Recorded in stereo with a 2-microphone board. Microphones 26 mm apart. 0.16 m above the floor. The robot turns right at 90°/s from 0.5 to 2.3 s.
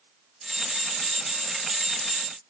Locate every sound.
Only background noise.